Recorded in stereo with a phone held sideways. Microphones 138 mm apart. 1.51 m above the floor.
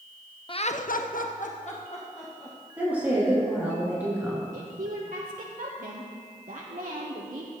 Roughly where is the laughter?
Left.